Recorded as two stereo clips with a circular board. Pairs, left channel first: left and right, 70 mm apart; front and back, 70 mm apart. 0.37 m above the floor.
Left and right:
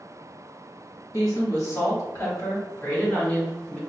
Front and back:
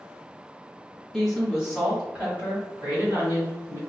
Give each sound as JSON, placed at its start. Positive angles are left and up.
{"t": 1.1, "sound": "a woman speaking", "azimuth_deg": 85, "distance_m": 1.9}